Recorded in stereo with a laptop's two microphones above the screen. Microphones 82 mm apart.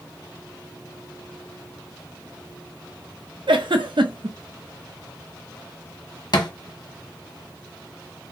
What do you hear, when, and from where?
3.5 s a giggle: 75° right (ahead or behind), 0.6 m
6.3 s a thud: 55° left (ahead or behind), 0.9 m